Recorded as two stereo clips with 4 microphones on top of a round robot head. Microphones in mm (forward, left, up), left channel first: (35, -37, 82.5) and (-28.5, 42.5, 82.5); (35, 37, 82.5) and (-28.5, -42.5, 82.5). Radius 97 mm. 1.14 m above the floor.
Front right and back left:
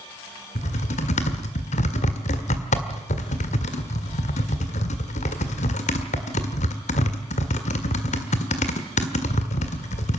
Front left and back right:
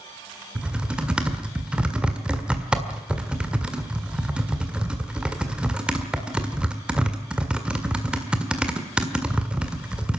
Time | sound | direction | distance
0.6 | typing on a keyboard | 50° right | 1.7 m